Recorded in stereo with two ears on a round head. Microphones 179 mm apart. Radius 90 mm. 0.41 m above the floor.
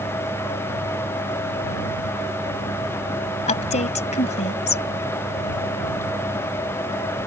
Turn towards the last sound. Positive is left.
turn(degrees=35)  # may be behind; listen again after turning